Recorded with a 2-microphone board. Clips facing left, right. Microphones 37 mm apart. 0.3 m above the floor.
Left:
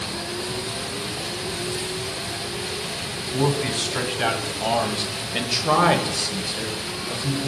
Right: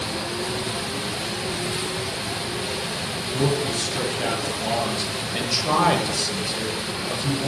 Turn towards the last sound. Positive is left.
turn(degrees=-25)  # may be behind; listen again after turning